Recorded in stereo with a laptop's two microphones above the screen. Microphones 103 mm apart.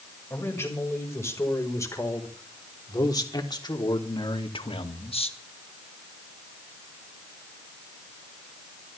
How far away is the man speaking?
About 5 m.